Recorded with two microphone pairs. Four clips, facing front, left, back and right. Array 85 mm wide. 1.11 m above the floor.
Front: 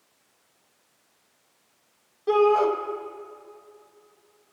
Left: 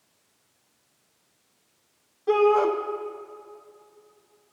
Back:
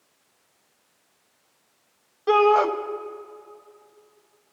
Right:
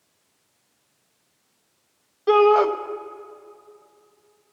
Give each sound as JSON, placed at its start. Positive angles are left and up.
{"t": 2.3, "sound": "a shout", "azimuth_deg": -140, "distance_m": 0.8}